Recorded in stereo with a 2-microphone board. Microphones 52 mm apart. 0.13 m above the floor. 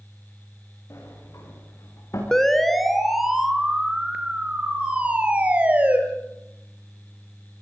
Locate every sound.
0.9 s a sliding door: 70° left (ahead or behind), 8.5 m
2.3 s a siren: 10° left (ahead or behind), 2 m; by 6.0 s 30° right (ahead or behind), 4 m